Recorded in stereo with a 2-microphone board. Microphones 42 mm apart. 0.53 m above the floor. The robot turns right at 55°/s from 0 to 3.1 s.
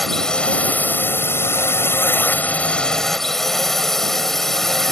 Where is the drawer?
No drawer in this recording.